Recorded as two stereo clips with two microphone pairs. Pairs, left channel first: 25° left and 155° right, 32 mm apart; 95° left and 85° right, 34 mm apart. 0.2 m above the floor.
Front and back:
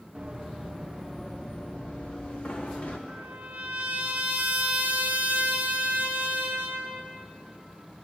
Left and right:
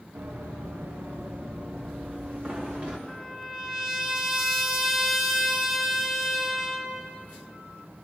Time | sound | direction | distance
0.1 | running footsteps | 90° right | 1.5 m
3.1 | a trumpet | 160° right | 1.2 m